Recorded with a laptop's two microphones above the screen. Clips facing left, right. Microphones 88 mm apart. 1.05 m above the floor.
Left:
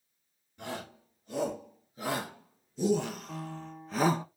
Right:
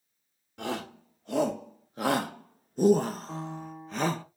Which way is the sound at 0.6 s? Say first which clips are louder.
Right 6 dB; 75° right (ahead or behind).